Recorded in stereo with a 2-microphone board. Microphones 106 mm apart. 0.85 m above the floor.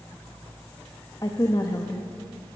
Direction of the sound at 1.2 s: 35° left (ahead or behind).